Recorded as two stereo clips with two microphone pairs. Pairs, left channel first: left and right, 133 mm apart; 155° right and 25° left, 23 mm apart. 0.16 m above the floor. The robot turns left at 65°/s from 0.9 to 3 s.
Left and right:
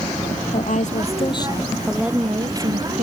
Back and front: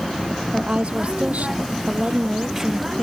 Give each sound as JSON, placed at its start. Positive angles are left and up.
{"t": 0.5, "sound": "a woman speaking", "azimuth_deg": 65}